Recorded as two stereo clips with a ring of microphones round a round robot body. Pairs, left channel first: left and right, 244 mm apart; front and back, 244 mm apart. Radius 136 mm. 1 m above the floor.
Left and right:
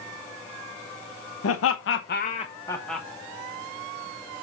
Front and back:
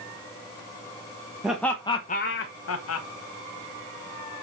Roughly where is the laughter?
Left.